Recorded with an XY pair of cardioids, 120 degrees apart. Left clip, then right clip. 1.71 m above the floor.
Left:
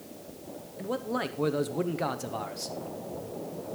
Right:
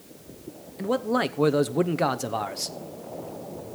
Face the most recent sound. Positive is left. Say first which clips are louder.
# right 7 dB
turn(degrees=-35)